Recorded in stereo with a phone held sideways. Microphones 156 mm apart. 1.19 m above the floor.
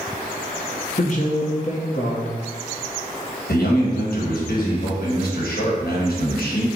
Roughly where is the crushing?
I don't hear crushing.